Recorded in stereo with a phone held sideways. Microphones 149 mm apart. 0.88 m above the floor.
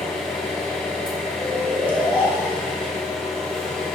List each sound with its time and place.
0.0 s an engine running: 5° left (ahead or behind), 1.2 m
1.4 s snoring: 15° right (ahead or behind), 1.0 m